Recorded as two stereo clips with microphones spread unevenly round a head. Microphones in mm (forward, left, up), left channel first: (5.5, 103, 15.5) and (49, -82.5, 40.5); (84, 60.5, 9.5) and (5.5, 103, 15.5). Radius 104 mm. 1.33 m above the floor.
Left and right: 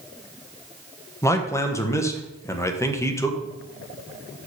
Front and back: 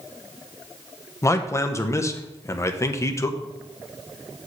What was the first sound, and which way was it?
A man speaking, 30° left.